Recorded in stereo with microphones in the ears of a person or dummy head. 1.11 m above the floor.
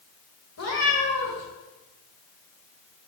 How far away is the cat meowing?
About 1.7 m.